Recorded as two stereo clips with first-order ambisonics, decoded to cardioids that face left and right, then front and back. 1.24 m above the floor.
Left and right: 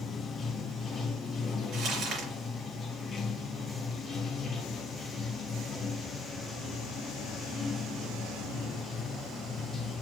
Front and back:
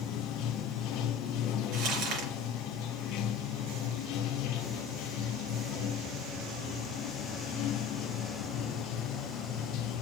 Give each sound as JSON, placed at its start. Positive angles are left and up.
{"t": 0.0, "sound": "running water", "azimuth_deg": 25, "distance_m": 0.9}
{"t": 1.7, "sound": "crumpling", "azimuth_deg": -150, "distance_m": 5.0}